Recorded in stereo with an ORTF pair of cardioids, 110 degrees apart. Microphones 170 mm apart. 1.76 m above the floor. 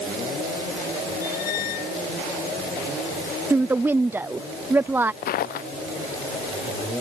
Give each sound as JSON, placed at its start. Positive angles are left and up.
{"t": 1.2, "sound": "a squeak", "azimuth_deg": 65}
{"t": 3.5, "sound": "a woman speaking", "azimuth_deg": -15}
{"t": 5.2, "sound": "footsteps", "azimuth_deg": 65}